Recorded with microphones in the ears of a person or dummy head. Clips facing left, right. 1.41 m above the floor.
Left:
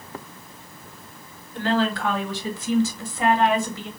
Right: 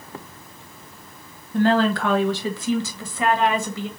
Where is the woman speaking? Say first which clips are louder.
Right 5 dB; 40° right (ahead or behind), 1.2 m; by 3.9 s 80° right, 1.7 m.